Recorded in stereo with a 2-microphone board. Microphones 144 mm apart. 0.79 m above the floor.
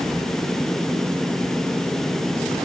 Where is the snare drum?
No snare drum in this recording.